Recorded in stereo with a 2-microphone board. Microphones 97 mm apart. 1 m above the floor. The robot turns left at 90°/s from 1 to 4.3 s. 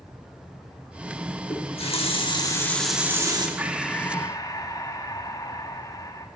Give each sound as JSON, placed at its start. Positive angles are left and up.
{"t": 1.5, "sound": "a running tap", "azimuth_deg": 125, "distance_m": 1.1}
{"t": 3.6, "sound": "breathing", "azimuth_deg": -160, "distance_m": 0.7}